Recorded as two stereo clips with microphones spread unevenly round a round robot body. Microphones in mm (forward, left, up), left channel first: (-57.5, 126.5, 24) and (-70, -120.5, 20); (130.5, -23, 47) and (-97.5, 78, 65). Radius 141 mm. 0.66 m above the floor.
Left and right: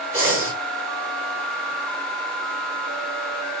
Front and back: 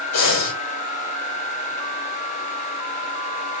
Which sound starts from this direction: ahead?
Breathing, at 0.1 s.